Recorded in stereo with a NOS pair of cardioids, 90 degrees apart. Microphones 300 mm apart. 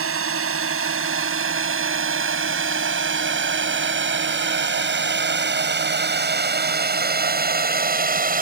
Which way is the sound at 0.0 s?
45° right.